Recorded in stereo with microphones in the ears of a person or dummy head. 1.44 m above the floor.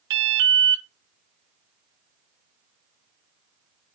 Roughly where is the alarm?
Right.